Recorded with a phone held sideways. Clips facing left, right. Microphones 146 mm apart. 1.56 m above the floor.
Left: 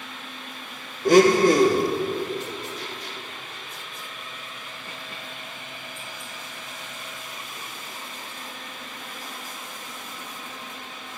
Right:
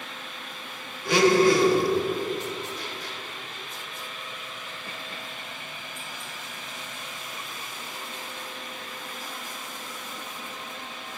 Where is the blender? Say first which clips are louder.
Left 4 dB; 45° left (ahead or behind), 1.2 m.